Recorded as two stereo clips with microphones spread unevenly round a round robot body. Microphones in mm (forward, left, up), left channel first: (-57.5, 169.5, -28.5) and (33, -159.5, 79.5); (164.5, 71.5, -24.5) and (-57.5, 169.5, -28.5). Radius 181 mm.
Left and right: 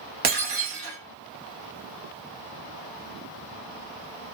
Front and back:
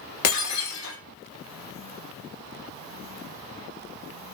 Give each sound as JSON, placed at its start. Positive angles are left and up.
{"t": 0.2, "sound": "breaking glass", "azimuth_deg": -35, "distance_m": 0.7}